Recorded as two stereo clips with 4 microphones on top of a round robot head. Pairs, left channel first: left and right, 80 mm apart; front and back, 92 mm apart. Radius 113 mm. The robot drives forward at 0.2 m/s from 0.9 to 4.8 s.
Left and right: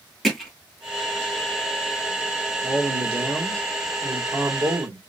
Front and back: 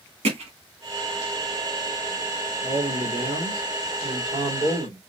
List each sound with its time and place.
0.2 s hammering: straight behind, 2.5 m
2.6 s a man speaking: 145° right, 3 m; by 5.0 s 150° right, 3.5 m